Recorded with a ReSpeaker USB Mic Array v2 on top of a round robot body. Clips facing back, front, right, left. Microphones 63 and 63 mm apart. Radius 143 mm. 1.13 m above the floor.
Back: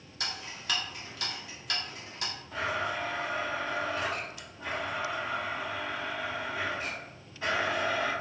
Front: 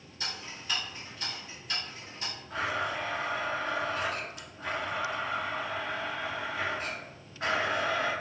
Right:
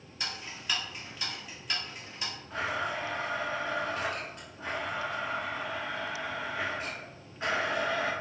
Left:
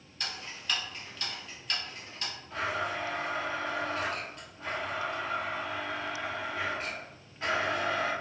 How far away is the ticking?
About 0.7 m.